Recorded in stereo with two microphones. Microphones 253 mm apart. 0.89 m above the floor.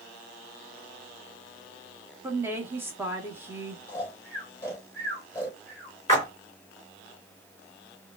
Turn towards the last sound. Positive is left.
turn(degrees=15)  # may be behind; listen again after turning